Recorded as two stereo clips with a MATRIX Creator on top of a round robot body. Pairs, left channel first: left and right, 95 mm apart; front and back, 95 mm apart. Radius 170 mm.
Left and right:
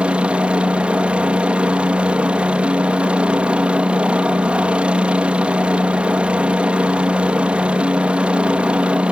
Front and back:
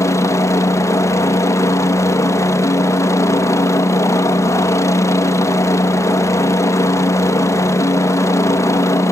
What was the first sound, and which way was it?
A helicopter, 20° right.